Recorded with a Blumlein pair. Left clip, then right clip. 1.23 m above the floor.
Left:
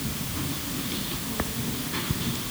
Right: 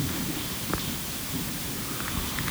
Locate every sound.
Only background noise.